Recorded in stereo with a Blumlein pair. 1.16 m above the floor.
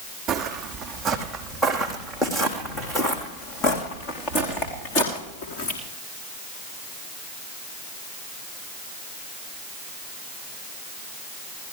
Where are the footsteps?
25° right, 3.5 m; by 5.8 s 40° left, 6.5 m.